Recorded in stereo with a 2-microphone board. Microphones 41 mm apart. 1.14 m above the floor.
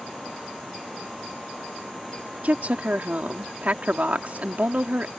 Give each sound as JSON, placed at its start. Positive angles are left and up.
{"t": 2.4, "sound": "a woman speaking", "side_deg": -35}